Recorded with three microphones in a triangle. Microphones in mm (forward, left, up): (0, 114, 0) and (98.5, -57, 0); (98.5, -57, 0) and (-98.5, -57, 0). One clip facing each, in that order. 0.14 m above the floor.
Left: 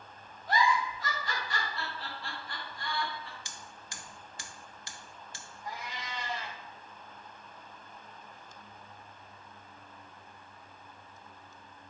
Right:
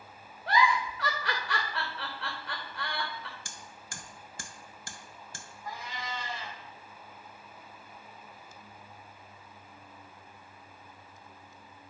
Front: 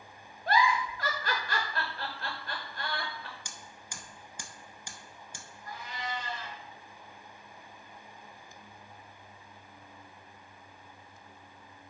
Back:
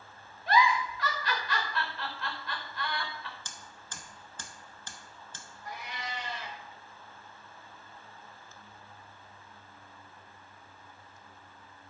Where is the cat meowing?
165° right, 2.5 m.